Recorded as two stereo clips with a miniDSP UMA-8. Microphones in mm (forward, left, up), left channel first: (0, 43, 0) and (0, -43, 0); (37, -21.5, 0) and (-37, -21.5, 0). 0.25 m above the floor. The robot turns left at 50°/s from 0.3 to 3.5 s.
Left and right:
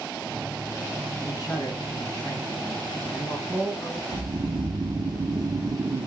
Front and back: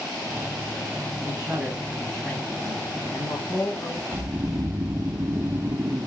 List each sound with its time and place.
1.3 s a man speaking: 120° left, 1.9 m; by 4.0 s 10° left, 1.9 m
4.1 s snoring: 130° right, 0.6 m